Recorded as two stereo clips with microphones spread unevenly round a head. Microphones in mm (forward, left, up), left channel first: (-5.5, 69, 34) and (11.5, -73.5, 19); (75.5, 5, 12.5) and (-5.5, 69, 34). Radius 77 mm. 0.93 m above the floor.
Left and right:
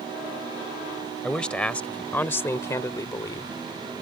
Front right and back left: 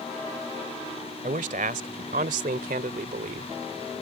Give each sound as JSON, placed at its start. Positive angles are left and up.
{"t": 1.2, "sound": "a man speaking", "azimuth_deg": 180}